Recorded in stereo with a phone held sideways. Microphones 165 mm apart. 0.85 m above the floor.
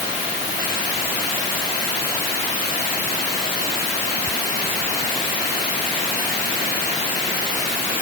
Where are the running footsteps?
No running footsteps in this recording.